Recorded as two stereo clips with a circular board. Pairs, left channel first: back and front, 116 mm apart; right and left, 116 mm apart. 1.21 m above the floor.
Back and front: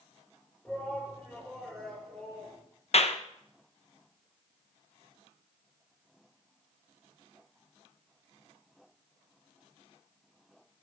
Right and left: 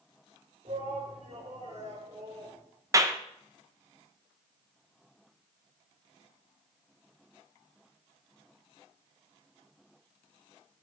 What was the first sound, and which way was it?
A shout, 105° left.